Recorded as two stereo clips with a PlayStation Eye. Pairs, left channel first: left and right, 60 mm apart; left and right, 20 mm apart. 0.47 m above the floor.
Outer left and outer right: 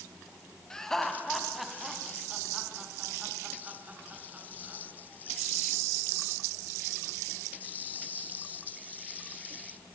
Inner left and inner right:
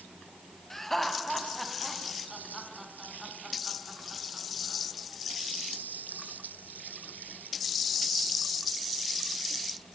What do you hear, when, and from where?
0.7 s laughter: 10° left (ahead or behind), 3.5 m; by 4.8 s 30° right (ahead or behind), 5.5 m